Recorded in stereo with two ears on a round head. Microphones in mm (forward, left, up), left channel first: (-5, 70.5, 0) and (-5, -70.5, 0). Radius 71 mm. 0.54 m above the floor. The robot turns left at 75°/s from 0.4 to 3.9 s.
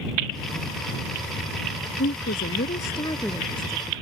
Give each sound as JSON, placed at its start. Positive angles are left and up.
{"t": 2.0, "sound": "a woman speaking", "azimuth_deg": 105}